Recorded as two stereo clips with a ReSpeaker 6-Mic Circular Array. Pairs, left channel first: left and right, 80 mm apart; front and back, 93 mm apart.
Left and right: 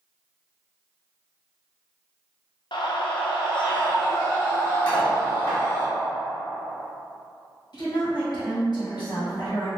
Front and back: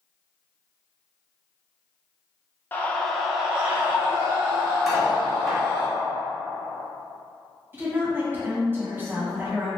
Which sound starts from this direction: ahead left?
A scream, at 2.7 s.